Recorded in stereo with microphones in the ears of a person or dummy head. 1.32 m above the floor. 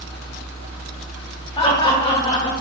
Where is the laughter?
25° left (ahead or behind), 0.9 m.